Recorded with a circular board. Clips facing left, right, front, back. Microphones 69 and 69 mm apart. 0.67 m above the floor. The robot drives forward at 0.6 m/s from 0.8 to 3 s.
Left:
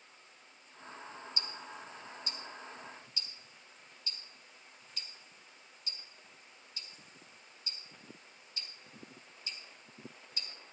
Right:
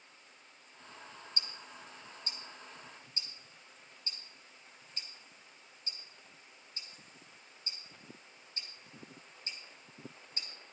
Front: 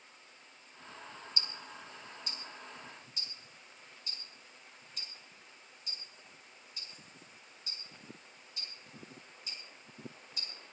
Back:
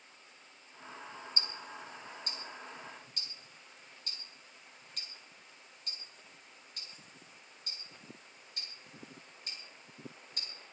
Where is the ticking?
130° right, 1.6 m; by 10.5 s 150° right, 2.5 m.